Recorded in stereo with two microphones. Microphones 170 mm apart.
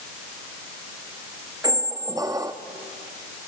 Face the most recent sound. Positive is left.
turn(degrees=-20)  # may be behind; listen again after turning